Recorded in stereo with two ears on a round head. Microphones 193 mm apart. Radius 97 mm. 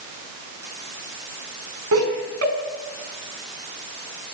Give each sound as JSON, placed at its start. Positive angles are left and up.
{"t": 1.9, "sound": "laughter", "side_deg": -75, "distance_m": 5.0}